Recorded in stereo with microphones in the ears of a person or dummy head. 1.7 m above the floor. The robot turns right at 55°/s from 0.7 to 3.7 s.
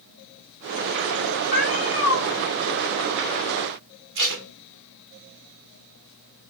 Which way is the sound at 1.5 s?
85° left.